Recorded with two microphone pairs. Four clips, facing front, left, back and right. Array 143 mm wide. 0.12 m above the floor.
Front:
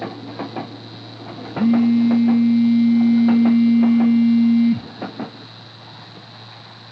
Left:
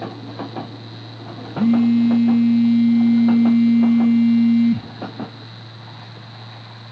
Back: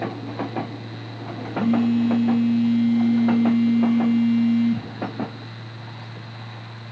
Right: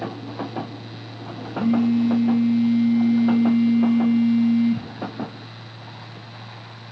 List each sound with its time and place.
1.6 s a phone buzzing: 45° left, 0.5 m